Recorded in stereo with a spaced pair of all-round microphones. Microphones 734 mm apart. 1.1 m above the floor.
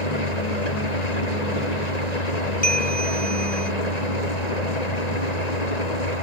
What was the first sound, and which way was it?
An engine running, 60° left (ahead or behind).